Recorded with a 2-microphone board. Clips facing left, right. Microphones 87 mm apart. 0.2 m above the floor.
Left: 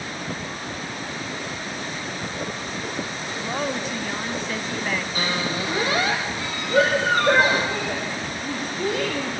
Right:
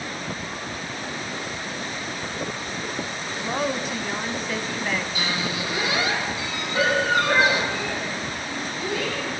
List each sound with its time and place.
3.4 s a woman speaking: centre (ahead or behind), 1.3 m
5.2 s a squeak: 40° left (ahead or behind), 5 m
6.7 s a shout: 55° left (ahead or behind), 7.5 m